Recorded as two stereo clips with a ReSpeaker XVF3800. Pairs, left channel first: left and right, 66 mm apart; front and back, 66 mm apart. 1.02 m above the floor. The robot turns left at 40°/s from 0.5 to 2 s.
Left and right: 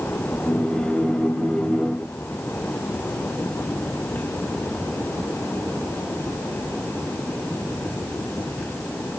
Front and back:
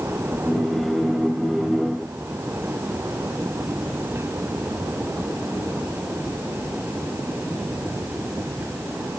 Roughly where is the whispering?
No whispering in this recording.